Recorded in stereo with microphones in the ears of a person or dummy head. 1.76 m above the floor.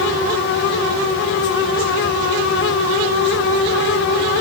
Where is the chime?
No chime in this recording.